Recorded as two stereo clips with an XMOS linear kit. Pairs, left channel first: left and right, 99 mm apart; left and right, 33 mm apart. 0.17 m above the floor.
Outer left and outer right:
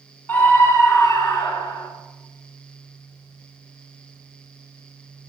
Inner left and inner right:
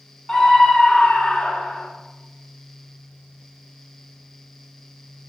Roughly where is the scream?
Centre.